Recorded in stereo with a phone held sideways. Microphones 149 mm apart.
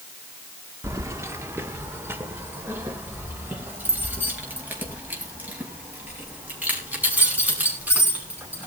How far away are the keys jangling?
About 1.3 m.